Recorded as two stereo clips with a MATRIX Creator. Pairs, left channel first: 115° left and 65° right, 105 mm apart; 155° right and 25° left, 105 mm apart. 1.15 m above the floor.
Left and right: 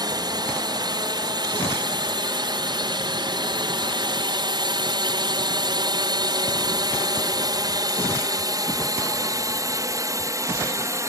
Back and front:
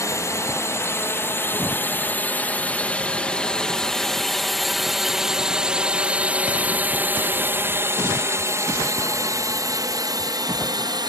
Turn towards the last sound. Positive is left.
turn(degrees=-15)